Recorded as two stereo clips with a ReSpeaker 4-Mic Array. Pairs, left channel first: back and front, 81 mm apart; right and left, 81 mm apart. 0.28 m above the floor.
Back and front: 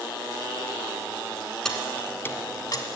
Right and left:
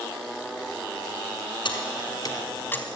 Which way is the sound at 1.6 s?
95° right.